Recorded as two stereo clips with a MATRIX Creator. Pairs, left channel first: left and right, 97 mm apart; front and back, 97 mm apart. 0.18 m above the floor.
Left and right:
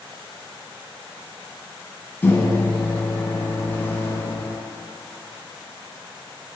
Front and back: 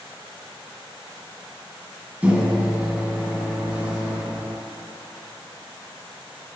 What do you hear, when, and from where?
2.2 s a microwave: 125° left, 1.2 m